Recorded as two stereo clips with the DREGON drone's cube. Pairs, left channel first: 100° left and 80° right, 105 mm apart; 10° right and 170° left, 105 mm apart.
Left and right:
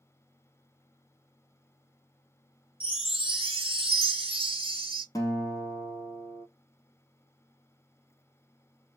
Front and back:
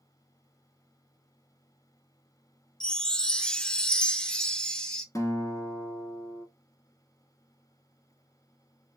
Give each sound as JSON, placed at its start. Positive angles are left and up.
{"t": 2.8, "sound": "a chime", "azimuth_deg": -95, "distance_m": 0.6}
{"t": 5.2, "sound": "a guitar", "azimuth_deg": 45, "distance_m": 1.1}